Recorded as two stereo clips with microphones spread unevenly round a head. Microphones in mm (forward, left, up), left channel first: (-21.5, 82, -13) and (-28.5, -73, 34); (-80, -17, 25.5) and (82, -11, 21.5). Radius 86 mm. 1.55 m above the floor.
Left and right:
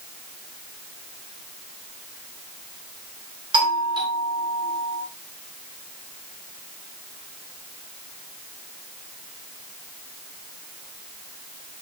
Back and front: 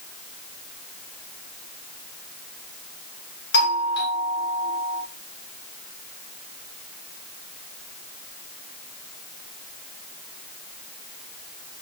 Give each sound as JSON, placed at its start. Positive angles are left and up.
{"t": 3.5, "sound": "a doorbell", "azimuth_deg": -155, "distance_m": 4.5}